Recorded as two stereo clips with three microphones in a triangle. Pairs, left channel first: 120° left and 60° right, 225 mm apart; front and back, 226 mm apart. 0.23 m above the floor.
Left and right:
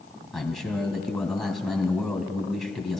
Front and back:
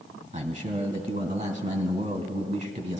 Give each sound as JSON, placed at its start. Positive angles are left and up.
{"t": 0.3, "sound": "a man speaking", "azimuth_deg": -155, "distance_m": 1.9}